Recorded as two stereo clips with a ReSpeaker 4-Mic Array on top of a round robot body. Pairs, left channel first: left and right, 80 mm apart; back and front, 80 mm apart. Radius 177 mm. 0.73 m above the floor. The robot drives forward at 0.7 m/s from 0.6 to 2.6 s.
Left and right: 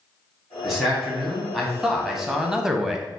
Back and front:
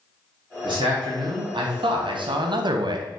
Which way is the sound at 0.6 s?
Straight ahead.